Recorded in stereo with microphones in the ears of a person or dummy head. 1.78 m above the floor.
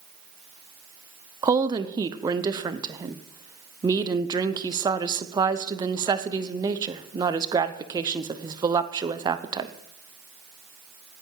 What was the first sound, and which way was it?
A woman speaking, 20° right (ahead or behind).